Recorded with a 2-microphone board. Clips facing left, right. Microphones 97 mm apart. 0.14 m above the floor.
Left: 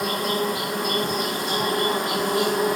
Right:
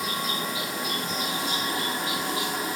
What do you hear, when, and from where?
0.0 s an insect: 60° left (ahead or behind)